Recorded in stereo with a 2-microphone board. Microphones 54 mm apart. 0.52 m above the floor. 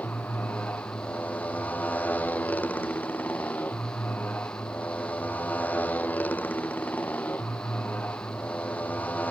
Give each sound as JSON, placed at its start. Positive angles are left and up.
{"t": 0.0, "sound": "a motorcycle", "side_deg": 30}